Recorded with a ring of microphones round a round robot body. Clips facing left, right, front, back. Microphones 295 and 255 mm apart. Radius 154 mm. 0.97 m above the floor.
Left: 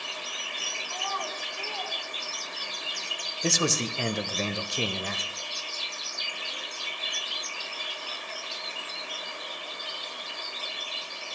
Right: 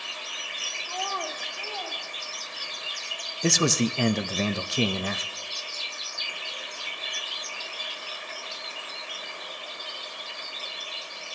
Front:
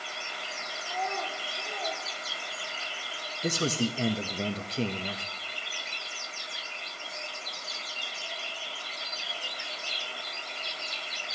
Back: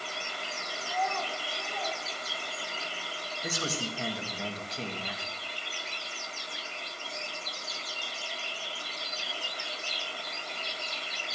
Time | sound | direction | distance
0.8 | a child speaking | 75° right | 2 m
3.4 | a man speaking | 65° right | 0.6 m